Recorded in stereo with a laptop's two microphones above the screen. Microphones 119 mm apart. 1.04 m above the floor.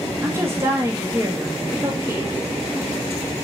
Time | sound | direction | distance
0.2 | a woman speaking | 20° right (ahead or behind) | 0.7 m